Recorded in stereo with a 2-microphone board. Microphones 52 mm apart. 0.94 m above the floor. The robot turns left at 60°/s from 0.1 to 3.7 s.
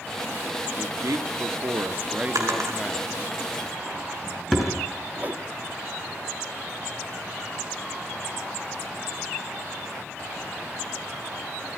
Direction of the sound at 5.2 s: 35° right (ahead or behind).